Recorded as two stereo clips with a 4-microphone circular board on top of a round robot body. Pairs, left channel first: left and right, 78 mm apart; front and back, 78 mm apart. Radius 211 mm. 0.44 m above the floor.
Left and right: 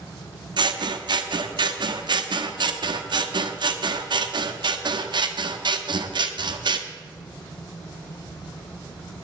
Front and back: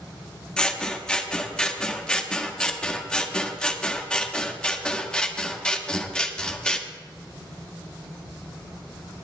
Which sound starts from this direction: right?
Scissors, at 0.6 s.